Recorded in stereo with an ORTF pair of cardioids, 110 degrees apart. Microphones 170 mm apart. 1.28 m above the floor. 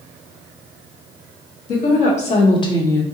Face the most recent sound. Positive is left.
turn(degrees=10)